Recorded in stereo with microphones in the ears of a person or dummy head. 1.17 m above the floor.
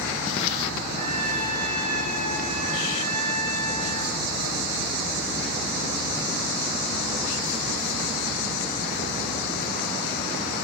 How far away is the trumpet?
About 4.5 m.